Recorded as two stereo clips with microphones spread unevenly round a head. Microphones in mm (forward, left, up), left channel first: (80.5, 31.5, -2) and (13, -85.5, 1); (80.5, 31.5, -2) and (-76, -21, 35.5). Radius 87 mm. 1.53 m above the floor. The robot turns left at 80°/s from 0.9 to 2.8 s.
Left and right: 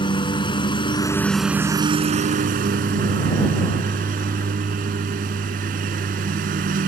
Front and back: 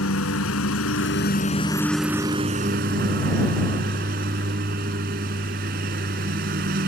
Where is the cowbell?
No cowbell in this recording.